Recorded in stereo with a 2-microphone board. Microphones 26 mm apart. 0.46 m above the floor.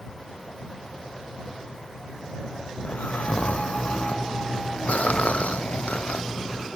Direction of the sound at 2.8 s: 65° left (ahead or behind).